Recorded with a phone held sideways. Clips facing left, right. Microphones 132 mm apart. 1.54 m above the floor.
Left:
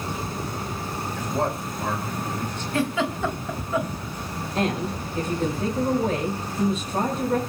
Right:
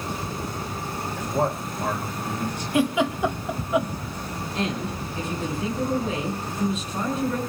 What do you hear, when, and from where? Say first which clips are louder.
1.2 s a man speaking: right 2 dB; 5° right (ahead or behind), 8.5 m; by 2.6 s 15° right (ahead or behind), 8.5 m
2.7 s a giggle: right 3 dB; 15° right (ahead or behind), 2.5 m
4.5 s a woman speaking: left 3 dB; 45° left (ahead or behind), 6 m